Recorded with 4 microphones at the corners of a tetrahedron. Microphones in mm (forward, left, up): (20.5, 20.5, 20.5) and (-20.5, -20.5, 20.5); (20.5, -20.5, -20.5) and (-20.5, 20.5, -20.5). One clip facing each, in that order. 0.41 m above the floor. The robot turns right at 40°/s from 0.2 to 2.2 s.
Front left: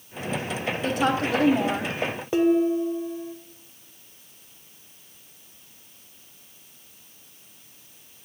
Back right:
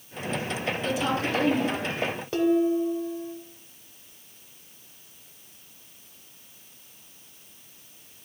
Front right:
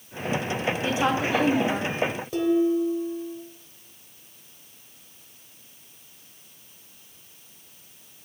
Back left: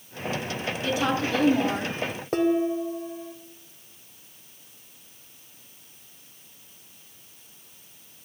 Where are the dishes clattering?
110° left, 1.0 m.